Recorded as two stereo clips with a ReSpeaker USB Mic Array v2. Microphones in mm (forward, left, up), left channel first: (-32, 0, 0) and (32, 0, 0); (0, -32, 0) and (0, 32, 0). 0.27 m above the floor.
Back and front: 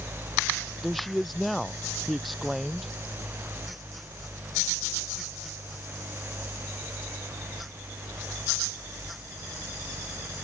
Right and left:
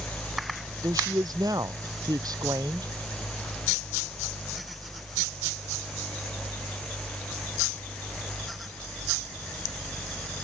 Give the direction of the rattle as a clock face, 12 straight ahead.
No rattle in this recording.